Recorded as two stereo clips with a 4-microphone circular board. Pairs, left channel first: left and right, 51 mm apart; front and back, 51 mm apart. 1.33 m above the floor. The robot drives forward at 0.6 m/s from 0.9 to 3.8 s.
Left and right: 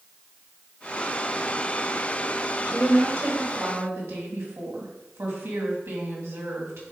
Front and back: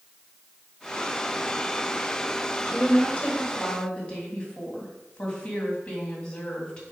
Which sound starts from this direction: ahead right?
A woman speaking, at 2.6 s.